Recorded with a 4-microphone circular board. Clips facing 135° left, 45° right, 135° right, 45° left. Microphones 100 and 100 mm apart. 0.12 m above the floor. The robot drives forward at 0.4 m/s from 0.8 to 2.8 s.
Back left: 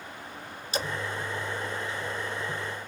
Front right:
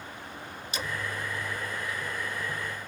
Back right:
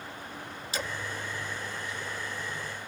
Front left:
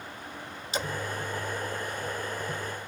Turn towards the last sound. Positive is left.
turn(degrees=145)